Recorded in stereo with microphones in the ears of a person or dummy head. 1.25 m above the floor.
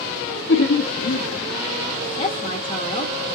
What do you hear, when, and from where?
0.5 s laughter: 60° left (ahead or behind), 0.5 m
2.2 s a woman speaking: 30° left (ahead or behind), 0.7 m